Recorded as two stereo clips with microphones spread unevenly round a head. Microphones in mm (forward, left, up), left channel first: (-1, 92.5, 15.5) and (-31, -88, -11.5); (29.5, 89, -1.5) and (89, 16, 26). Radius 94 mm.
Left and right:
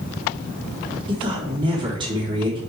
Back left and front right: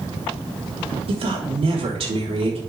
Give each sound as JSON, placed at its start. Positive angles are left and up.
{"t": 1.1, "sound": "a woman speaking", "azimuth_deg": -35, "distance_m": 3.5}